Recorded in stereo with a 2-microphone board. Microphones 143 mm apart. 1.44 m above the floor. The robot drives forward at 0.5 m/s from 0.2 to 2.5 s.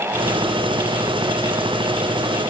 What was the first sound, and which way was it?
Only background noise.